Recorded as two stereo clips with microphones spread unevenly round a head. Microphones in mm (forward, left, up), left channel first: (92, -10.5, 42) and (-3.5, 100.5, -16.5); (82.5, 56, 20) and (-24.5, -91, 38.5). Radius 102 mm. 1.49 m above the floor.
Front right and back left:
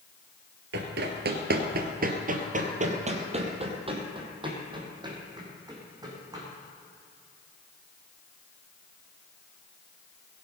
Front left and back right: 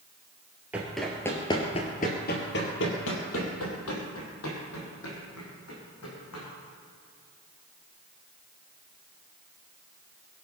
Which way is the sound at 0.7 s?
160° left.